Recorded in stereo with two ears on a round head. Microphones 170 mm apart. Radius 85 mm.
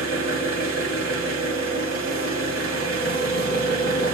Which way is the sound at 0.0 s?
75° right (ahead or behind).